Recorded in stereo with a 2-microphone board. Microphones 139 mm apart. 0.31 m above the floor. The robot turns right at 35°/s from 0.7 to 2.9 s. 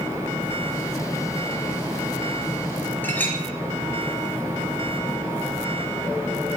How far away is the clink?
About 3 m.